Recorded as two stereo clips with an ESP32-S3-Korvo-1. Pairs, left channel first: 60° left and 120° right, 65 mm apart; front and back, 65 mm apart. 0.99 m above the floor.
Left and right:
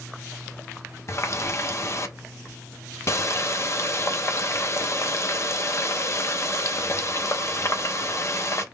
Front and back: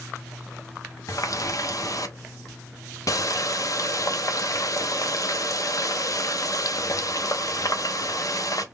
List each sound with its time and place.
1.1 s a running tap: 20° left, 0.6 m